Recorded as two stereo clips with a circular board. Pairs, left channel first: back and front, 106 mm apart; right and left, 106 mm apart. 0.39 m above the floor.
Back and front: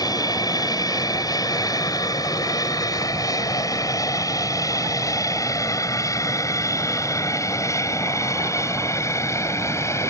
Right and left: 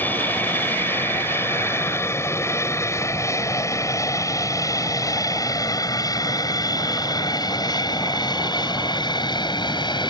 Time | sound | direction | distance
0.0 | an aircraft | 155° right | ?